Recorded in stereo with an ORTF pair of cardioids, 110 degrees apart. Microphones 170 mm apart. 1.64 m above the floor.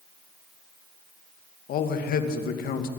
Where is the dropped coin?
I don't hear a dropped coin.